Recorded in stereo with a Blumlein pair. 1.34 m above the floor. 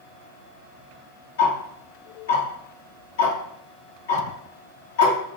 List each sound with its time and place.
1.4 s ticking: 60° left, 1.0 m